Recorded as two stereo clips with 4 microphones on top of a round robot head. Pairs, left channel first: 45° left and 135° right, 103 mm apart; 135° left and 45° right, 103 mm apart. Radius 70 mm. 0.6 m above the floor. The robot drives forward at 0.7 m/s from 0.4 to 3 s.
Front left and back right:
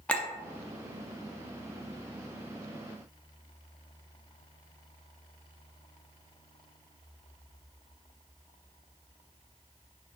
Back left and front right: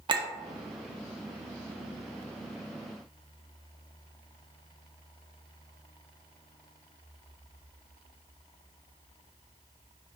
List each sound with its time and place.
0.1 s a clink: 30° right, 0.7 m